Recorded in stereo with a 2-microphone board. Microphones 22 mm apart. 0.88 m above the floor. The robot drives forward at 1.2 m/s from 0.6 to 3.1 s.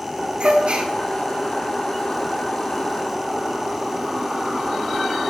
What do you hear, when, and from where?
0.4 s a gasp: 70° right (ahead or behind), 2.5 m; by 0.9 s 75° right (ahead or behind), 2.5 m